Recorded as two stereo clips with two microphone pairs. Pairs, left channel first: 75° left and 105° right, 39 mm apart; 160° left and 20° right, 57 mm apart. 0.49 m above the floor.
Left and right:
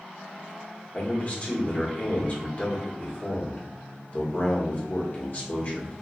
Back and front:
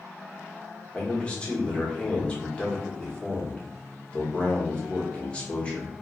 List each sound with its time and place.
0.9 s a man speaking: 105° left, 1.1 m